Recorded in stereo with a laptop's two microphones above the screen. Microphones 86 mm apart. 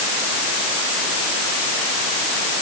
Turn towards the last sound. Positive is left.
No sound to turn to.